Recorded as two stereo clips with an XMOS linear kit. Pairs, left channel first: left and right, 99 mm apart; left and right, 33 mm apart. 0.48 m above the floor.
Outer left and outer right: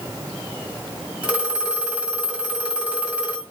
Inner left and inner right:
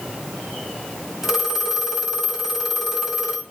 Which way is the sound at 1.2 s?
10° right (ahead or behind).